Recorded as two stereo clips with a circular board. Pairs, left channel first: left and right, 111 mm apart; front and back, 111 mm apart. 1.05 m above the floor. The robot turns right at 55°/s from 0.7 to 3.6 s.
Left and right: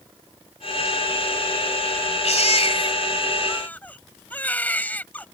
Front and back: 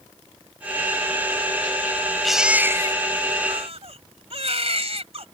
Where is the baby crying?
90° left; by 5.2 s 165° left.